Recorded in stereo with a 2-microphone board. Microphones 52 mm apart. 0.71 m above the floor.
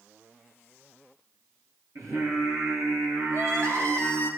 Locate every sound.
1.9 s singing: 75° right (ahead or behind), 10 m
3.3 s crying: 55° right (ahead or behind), 3.5 m